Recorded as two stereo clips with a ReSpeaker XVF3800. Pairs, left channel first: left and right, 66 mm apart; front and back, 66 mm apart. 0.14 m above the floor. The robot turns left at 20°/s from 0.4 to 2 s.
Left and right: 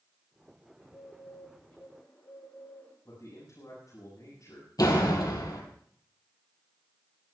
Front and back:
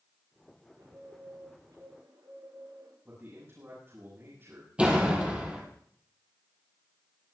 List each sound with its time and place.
0.8 s a bird: straight behind, 9 m; by 3.0 s 155° left, 9 m
3.0 s a man speaking: 125° left, 7.5 m
4.8 s a door slam: 110° left, 3 m